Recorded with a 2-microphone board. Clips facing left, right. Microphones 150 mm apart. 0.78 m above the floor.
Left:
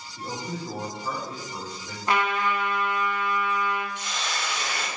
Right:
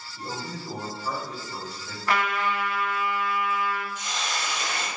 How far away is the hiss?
About 2.5 m.